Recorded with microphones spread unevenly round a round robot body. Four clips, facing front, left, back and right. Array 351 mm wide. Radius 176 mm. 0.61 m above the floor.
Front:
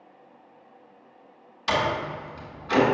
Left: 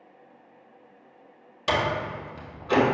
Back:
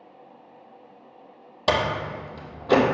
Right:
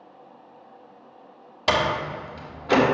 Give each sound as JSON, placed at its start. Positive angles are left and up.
{"t": 1.7, "sound": "a door slam", "azimuth_deg": -155, "distance_m": 1.4}